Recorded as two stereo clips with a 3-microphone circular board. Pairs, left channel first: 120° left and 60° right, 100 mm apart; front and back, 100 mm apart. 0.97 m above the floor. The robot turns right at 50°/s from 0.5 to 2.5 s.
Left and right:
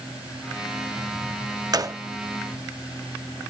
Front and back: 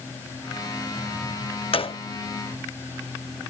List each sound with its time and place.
1.7 s a gunshot: 15° right; by 2.0 s straight ahead